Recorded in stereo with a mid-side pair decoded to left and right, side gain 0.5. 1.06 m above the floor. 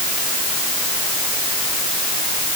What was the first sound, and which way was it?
Only background noise.